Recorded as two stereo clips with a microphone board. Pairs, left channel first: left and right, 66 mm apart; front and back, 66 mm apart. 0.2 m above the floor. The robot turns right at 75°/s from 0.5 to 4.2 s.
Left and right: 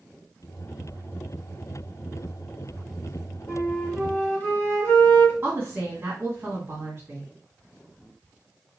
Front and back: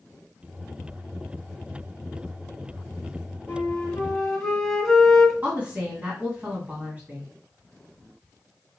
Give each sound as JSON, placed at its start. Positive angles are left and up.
{"t": 3.5, "sound": "a flute", "azimuth_deg": 25, "distance_m": 1.4}
{"t": 5.4, "sound": "a woman speaking", "azimuth_deg": -130, "distance_m": 2.0}